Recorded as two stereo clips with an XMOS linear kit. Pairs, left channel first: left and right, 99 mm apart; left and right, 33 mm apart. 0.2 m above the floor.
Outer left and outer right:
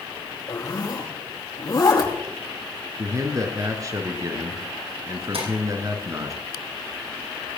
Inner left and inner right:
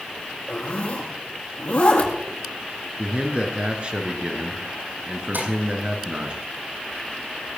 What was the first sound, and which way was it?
A zipper, 40° left (ahead or behind).